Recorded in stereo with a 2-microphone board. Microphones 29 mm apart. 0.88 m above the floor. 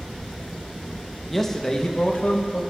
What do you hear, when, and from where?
1.3 s a man speaking: 10° left (ahead or behind), 0.7 m; by 2.7 s 55° left (ahead or behind), 1.0 m